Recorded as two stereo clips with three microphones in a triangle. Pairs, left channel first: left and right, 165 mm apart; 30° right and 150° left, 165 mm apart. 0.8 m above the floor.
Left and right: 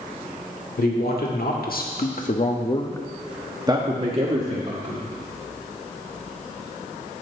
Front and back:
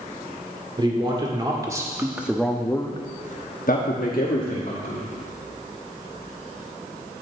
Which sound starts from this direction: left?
A man speaking, at 0.8 s.